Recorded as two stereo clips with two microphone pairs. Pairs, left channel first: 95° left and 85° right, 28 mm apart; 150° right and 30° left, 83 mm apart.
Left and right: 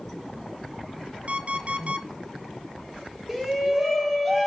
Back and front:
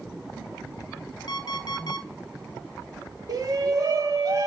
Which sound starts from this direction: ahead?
A shout, at 3.3 s.